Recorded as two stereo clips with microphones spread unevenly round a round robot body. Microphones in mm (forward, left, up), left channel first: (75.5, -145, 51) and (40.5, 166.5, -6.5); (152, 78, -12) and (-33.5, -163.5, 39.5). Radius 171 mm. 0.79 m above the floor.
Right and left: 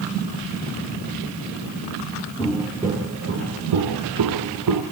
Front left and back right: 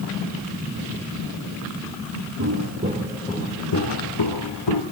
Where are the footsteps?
155° right, 1.3 m; by 4.8 s 65° left, 1.9 m.